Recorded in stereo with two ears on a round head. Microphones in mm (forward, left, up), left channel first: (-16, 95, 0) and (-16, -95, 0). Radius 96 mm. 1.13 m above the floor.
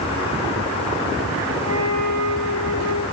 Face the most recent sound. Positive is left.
turn(degrees=-85)